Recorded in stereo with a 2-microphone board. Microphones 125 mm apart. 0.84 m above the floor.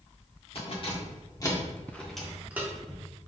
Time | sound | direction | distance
0.6 | keys jangling | 50° left (ahead or behind) | 1.3 m